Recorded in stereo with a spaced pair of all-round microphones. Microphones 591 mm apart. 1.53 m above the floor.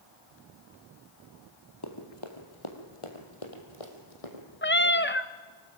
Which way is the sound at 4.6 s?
20° left (ahead or behind).